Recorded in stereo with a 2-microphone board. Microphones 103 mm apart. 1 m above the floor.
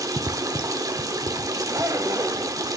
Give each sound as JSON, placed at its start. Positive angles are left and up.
{"t": 0.0, "sound": "running water", "side_deg": -35, "distance_m": 1.0}
{"t": 1.6, "sound": "a zipper", "side_deg": -30, "distance_m": 1.1}